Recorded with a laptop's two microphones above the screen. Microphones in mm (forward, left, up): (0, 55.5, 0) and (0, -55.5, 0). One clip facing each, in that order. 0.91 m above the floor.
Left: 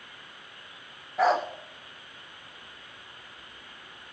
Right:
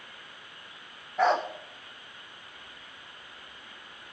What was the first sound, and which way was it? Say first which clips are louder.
A dog barking: left 1 dB; centre (ahead or behind).